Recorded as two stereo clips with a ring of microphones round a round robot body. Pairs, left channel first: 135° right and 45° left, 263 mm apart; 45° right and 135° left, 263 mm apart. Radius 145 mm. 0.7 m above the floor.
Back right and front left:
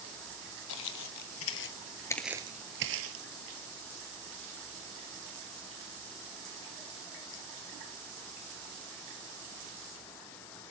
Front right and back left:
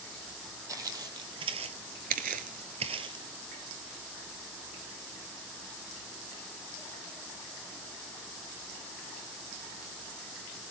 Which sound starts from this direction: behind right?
Footsteps, at 0.7 s.